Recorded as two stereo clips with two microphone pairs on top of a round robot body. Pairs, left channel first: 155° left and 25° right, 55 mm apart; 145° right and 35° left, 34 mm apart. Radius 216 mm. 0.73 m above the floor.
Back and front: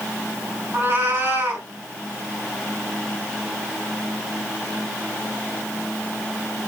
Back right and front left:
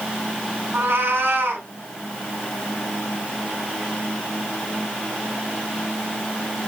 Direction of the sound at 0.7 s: 25° left.